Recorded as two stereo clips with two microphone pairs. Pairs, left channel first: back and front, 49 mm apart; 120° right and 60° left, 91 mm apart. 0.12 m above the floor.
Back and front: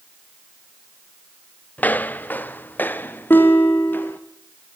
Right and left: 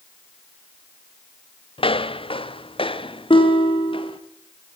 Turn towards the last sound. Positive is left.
turn(degrees=-140)